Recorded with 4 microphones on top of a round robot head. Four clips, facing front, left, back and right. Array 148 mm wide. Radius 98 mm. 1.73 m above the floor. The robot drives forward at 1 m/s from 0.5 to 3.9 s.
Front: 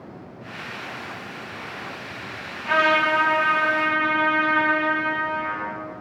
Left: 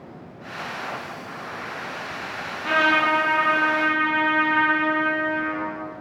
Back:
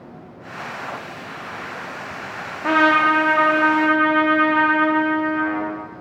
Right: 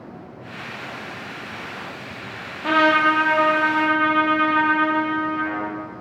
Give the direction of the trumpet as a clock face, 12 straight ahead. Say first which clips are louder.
Right 3 dB, back 4 dB; 5 o'clock.